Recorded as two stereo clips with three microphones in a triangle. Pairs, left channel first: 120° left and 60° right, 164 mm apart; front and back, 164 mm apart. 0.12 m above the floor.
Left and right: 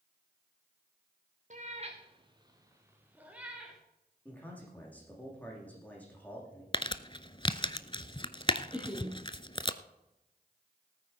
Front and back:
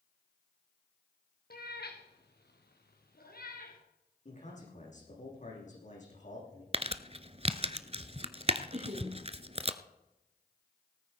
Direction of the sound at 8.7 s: 140° right.